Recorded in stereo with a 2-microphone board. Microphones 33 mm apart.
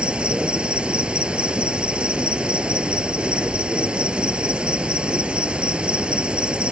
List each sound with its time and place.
0.0 s an insect: 35° right (ahead or behind)